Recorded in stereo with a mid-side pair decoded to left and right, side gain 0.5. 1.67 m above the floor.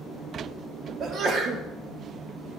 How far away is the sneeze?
About 1.8 m.